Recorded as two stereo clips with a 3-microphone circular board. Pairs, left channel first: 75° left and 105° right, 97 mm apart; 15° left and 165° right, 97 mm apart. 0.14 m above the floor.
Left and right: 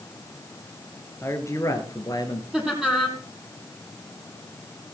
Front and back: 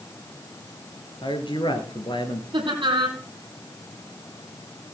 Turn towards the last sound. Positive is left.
turn(degrees=170)